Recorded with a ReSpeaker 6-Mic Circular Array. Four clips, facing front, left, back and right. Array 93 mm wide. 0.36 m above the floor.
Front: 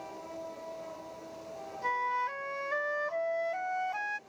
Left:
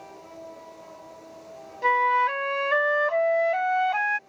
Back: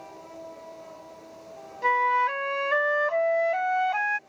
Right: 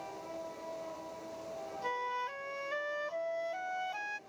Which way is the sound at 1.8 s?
125° left.